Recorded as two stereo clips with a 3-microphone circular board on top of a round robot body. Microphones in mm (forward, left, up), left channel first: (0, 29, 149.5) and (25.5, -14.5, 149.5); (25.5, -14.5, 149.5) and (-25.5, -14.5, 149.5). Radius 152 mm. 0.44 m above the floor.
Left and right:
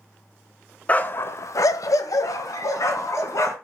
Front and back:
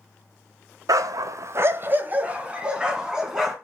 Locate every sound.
0.9 s a dog barking: 175° right, 0.7 m; by 3.5 s 100° left, 2 m